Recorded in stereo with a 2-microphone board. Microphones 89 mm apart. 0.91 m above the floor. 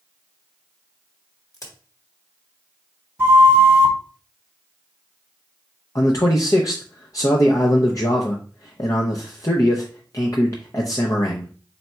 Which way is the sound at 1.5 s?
40° left (ahead or behind).